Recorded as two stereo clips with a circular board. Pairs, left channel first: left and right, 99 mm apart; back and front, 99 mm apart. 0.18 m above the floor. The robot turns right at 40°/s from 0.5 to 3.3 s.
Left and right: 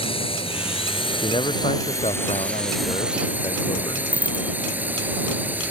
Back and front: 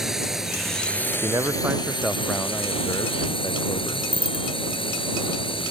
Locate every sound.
0.0 s a drone: 85° left; by 5.7 s 160° right
1.2 s a man speaking: 50° left; by 4.0 s 135° left
4.1 s a bicycle bell: 165° right